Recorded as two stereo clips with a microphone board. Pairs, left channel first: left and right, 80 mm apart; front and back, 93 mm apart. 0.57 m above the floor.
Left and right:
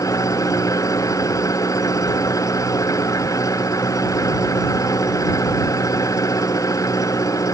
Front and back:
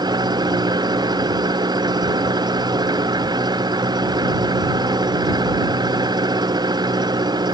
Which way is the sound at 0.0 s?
135° left.